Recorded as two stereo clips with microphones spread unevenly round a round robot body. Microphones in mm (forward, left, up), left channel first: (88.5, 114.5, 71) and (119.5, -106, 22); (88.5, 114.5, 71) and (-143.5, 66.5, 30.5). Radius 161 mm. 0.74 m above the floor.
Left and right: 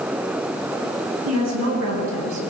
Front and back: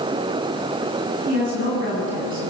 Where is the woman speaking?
110° right, 8.5 m.